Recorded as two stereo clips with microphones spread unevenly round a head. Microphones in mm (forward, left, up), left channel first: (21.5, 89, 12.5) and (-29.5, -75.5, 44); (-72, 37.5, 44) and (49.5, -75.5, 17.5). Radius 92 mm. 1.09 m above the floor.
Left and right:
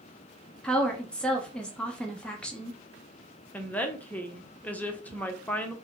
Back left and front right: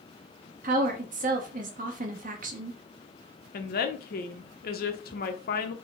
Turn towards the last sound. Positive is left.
turn(degrees=140)